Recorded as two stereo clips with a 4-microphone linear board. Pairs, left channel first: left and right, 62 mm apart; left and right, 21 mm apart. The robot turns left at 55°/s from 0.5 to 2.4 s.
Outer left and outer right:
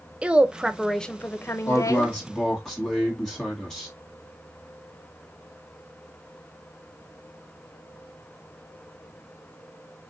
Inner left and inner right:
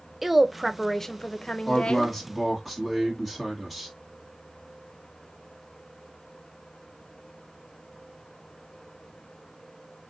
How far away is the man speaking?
About 1.7 m.